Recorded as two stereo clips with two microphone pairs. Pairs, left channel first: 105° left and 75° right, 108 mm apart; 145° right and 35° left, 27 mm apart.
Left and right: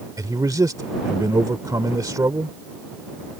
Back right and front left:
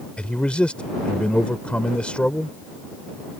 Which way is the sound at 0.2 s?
125° right.